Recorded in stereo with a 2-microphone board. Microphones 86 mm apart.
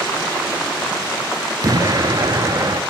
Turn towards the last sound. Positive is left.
turn(degrees=-45)  # may be behind; listen again after turning